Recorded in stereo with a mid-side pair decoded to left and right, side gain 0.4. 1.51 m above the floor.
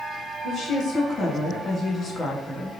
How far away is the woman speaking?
About 1.8 m.